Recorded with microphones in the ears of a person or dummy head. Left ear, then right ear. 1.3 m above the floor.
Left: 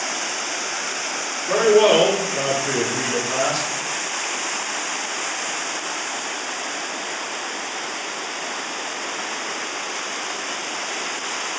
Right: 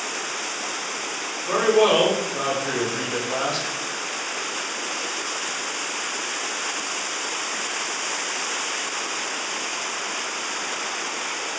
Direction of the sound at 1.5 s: 20° right (ahead or behind).